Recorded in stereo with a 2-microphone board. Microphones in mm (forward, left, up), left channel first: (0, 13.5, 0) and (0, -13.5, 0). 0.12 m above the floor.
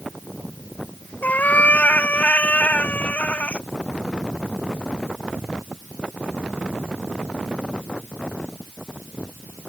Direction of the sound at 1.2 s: 90° left.